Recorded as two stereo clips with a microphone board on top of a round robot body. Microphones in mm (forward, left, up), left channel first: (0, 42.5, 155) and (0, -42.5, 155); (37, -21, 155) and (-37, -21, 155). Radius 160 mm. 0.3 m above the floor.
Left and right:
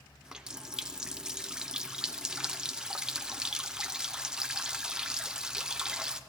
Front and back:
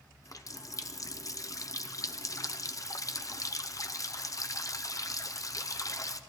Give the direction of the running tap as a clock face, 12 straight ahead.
12 o'clock.